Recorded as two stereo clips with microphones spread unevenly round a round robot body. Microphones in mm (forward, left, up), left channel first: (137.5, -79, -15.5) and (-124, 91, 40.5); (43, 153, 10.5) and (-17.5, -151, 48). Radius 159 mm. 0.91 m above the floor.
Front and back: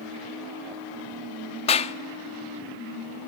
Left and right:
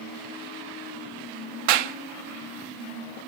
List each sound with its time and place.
1.7 s a clap: 105° right, 1.4 m